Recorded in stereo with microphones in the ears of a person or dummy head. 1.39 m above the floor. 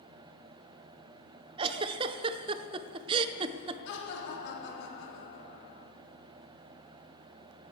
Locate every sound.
1.6 s a giggle: 25° right (ahead or behind), 0.6 m
3.9 s laughter: 75° left (ahead or behind), 3.5 m